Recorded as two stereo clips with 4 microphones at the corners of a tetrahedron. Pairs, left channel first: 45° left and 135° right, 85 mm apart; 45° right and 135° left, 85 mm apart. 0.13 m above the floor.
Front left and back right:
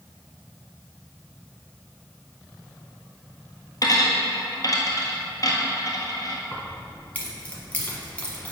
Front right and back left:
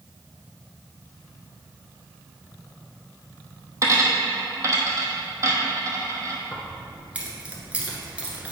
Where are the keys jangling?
85° left, 1.2 m.